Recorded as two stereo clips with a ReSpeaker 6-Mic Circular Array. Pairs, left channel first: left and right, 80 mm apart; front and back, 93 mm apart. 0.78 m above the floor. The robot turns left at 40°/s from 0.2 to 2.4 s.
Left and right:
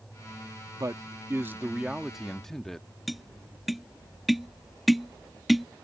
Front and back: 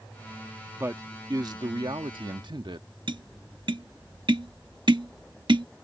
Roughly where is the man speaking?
Behind right.